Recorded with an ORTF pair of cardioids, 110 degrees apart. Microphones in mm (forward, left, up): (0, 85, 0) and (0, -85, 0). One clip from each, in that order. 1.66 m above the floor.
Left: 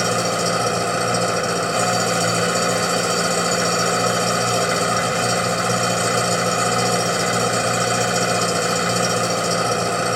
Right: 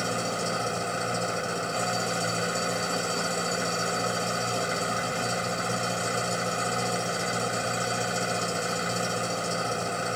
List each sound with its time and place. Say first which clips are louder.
0.0 s an engine running: left 9 dB; 55° left